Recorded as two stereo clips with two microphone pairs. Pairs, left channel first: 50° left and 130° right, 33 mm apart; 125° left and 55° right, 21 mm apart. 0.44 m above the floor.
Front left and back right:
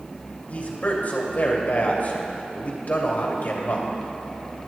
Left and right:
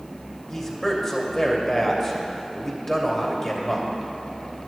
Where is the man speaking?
60° left, 2.5 m.